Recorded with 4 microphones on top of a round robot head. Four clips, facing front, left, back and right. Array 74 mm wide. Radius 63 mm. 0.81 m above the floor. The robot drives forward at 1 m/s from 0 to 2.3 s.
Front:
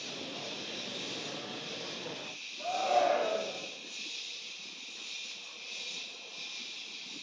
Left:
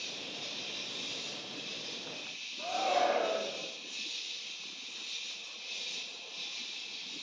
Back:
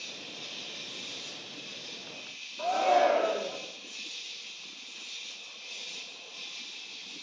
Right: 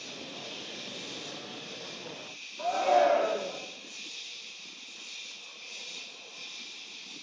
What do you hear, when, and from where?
0.0 s an insect: 115° left, 8.5 m; by 7.2 s 130° left, 10 m
2.6 s a shout: 150° right, 2 m